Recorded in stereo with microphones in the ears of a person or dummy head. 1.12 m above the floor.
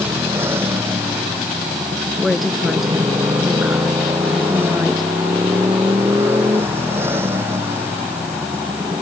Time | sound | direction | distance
0.0 | a motorcycle | 15° right (ahead or behind) | ?
2.2 | a woman speaking | 5° right (ahead or behind) | ?